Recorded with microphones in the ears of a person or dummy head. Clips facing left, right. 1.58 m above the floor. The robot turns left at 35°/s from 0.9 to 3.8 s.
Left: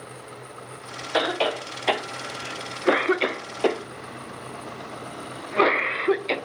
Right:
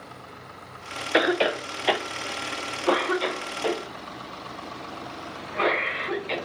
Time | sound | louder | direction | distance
1.1 | a cough | right 2 dB | 30° right (ahead or behind) | 0.5 m